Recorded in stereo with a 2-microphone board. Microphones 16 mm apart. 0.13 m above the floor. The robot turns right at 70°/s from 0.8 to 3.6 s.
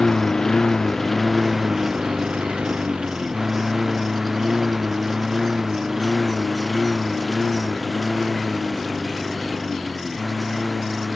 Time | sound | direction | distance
0.0 | a lawn mower | 35° left (ahead or behind) | ?